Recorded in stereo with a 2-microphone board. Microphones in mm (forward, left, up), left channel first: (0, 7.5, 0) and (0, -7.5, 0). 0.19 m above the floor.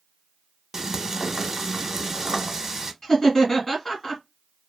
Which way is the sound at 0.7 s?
30° right (ahead or behind).